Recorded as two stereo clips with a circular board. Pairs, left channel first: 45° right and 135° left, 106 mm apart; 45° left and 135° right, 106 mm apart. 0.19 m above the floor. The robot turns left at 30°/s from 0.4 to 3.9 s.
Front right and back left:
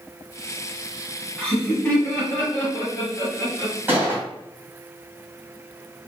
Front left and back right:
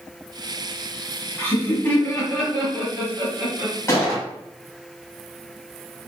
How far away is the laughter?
About 1.7 m.